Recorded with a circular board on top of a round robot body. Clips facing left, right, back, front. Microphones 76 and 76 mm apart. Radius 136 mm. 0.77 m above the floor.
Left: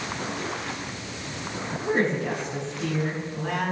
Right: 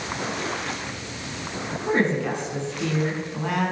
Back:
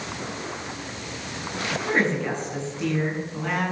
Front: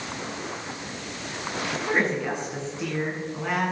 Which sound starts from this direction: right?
A woman speaking, at 1.9 s.